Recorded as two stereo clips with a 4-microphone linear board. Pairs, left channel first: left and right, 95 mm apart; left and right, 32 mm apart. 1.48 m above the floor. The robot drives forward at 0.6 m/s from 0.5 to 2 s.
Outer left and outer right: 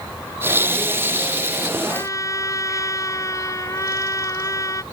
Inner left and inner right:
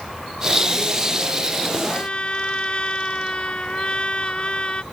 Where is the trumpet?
35° left (ahead or behind).